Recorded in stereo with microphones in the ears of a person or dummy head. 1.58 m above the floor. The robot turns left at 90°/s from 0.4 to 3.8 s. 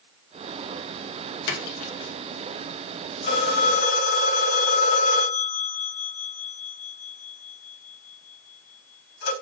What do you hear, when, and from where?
1.5 s a splash: 70° left (ahead or behind), 1.5 m; by 2.1 s 15° left (ahead or behind), 1.5 m
3.2 s a phone ringing: 45° left (ahead or behind), 2.5 m; by 9.3 s 80° left, 2.5 m